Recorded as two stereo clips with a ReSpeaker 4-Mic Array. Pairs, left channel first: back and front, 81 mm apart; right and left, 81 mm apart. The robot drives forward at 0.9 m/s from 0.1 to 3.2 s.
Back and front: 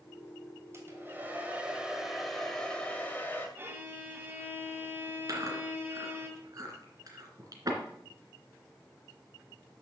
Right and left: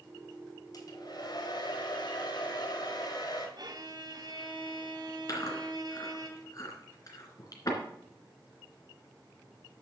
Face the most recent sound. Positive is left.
turn(degrees=-45)